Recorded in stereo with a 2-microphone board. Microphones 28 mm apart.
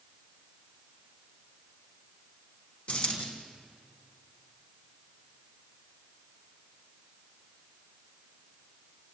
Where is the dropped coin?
50° left (ahead or behind), 5.5 m.